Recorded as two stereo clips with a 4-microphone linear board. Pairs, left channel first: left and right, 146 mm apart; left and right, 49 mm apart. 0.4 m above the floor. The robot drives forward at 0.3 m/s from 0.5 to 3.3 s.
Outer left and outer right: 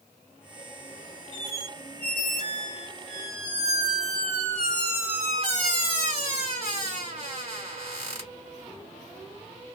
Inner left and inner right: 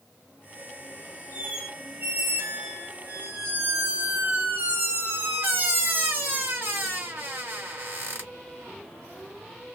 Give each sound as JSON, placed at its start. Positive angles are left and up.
{"t": 1.3, "sound": "a squeak", "side_deg": -50, "distance_m": 1.3}